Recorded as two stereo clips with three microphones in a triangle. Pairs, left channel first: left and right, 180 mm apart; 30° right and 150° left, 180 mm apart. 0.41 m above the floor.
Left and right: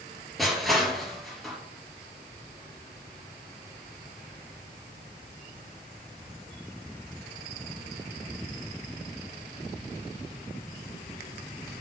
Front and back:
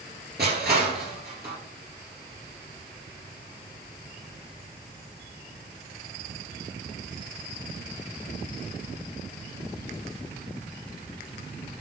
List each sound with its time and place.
0.4 s crushing: straight behind, 3 m